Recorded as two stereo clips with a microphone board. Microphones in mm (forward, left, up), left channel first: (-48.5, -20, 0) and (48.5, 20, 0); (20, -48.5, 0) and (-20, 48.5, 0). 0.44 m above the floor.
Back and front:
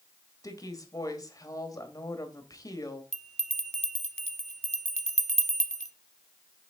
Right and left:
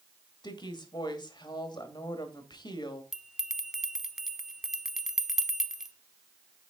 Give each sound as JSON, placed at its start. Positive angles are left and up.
{"t": 0.4, "sound": "a woman speaking", "azimuth_deg": -105, "distance_m": 1.6}
{"t": 3.1, "sound": "a bell", "azimuth_deg": 25, "distance_m": 0.7}